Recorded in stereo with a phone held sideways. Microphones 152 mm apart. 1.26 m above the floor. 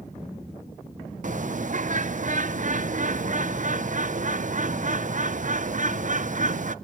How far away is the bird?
About 0.5 m.